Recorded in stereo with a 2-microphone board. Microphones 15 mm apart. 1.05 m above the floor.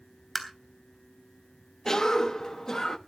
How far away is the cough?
About 1.2 m.